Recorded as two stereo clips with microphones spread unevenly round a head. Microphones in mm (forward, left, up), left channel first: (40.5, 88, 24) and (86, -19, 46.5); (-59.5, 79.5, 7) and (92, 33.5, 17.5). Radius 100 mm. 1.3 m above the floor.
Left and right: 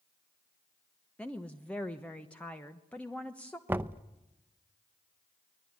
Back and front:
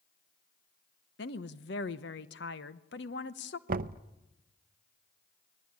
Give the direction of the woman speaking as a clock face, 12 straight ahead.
5 o'clock.